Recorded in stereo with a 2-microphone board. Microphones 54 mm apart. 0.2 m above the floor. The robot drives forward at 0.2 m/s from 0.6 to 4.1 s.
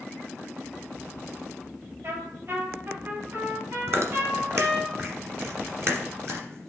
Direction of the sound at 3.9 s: 55° right (ahead or behind).